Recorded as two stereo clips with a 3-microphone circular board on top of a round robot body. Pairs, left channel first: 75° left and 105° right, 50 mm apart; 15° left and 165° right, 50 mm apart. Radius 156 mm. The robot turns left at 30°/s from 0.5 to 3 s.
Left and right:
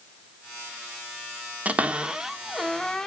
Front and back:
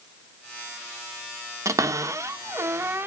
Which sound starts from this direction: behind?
A cupboard door, at 1.6 s.